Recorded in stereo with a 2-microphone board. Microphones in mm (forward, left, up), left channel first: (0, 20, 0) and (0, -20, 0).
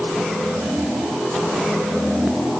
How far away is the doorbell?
I don't hear a doorbell.